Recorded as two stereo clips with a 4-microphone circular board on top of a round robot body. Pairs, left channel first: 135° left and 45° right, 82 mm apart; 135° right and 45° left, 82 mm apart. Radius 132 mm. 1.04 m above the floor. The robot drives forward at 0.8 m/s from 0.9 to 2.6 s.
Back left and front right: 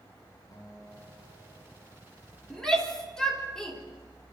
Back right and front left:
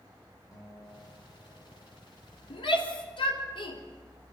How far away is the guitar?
About 5.5 m.